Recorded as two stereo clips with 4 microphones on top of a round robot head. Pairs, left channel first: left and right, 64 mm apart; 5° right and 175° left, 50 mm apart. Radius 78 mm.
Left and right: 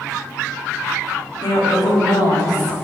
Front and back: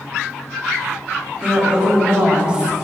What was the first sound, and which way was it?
A woman speaking, 105° left.